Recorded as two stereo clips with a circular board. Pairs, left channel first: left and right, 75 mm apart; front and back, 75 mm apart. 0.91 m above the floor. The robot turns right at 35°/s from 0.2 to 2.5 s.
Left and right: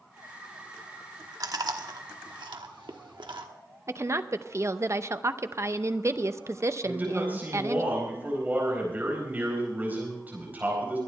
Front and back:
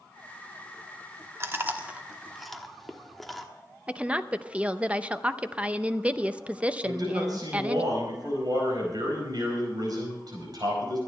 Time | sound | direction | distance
1.4 | chewing | 130° right | 1.2 m
3.9 | a woman speaking | 115° right | 0.6 m
6.8 | a man speaking | 155° right | 4.5 m